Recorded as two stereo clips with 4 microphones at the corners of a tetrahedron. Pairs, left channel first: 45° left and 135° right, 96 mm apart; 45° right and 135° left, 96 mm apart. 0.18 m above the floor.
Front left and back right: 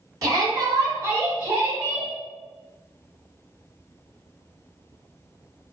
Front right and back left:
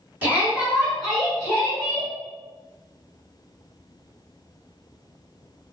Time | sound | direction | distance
0.2 | a shout | 170° right | 1.6 m